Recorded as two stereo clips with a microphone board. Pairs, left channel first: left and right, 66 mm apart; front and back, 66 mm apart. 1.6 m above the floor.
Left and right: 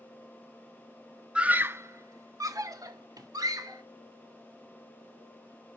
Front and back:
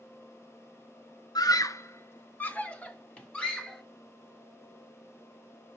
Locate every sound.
1.4 s a scream: 15° right, 1.1 m; by 3.8 s 80° right, 4 m